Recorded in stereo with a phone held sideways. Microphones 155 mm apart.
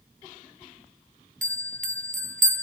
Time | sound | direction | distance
1.4 | a bell | 55° right (ahead or behind) | 0.6 m